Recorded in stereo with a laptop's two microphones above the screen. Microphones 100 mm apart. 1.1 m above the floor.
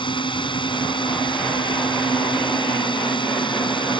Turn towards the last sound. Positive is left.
turn(degrees=55)  # may be behind; listen again after turning